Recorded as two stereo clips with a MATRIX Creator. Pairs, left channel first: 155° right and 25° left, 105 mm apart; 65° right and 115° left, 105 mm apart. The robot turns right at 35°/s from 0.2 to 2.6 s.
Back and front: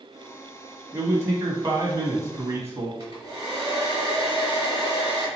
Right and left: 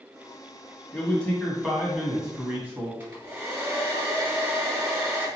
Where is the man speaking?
10° right, 1.4 m; by 2.9 s 50° left, 1.4 m.